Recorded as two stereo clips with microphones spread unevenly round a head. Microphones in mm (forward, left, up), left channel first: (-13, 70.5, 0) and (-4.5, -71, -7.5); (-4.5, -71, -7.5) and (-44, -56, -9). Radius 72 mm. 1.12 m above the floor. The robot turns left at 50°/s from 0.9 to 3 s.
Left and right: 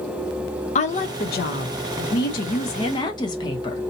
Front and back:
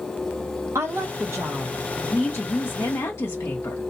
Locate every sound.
0.8 s a woman speaking: 135° left, 1.0 m; by 3.9 s 30° left, 1.0 m